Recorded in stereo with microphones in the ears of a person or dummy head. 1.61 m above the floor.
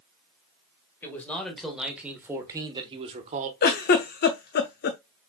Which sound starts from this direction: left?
A giggle, at 3.6 s.